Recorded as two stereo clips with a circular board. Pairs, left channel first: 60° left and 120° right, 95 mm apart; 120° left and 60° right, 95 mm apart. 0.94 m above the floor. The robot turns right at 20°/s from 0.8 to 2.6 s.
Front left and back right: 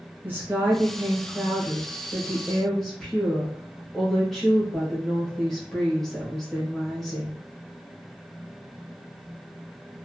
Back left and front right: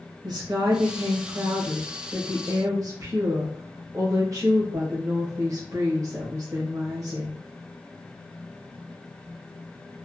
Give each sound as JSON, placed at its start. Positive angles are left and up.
{"t": 0.2, "sound": "a woman speaking", "azimuth_deg": -60, "distance_m": 1.0}